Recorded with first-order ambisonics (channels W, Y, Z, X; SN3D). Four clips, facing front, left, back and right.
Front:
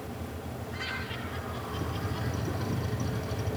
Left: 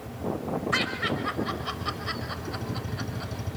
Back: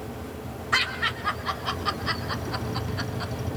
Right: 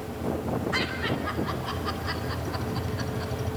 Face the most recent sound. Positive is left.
turn(degrees=170)